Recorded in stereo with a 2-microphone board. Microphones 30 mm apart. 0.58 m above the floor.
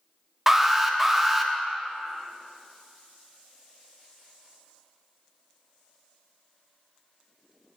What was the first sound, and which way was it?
An alarm, 10° right (ahead or behind).